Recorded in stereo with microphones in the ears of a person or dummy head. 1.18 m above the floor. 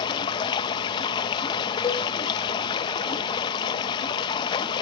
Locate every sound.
0.0 s running water: 25° left (ahead or behind), 0.7 m
1.8 s a cowbell: 20° left (ahead or behind), 1.1 m